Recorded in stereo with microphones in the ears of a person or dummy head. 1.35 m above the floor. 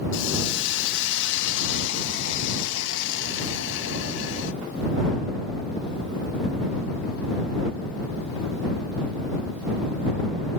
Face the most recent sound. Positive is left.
turn(degrees=75)  # may be behind; listen again after turning